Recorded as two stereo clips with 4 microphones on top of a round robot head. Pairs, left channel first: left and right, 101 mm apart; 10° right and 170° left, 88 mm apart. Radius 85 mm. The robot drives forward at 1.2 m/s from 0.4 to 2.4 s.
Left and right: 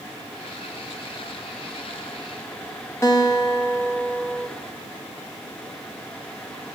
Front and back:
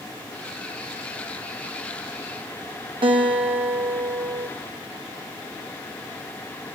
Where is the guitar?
155° left, 2.5 m.